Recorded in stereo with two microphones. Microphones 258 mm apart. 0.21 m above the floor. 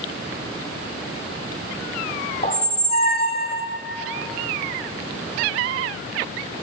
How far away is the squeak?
About 0.7 m.